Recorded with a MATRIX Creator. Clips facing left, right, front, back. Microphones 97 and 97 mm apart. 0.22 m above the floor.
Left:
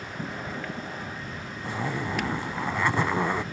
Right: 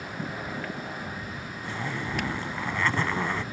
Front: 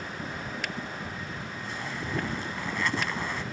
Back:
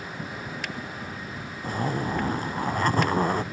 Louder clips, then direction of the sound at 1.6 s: Left 3 dB, back 10 dB; 160° left.